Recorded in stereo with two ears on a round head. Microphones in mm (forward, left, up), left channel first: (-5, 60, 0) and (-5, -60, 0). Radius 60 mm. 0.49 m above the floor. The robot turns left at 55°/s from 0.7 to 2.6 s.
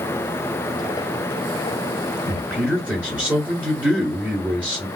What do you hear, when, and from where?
2.2 s a man speaking: centre (ahead or behind), 1.2 m; by 4.9 s 10° right (ahead or behind), 1.2 m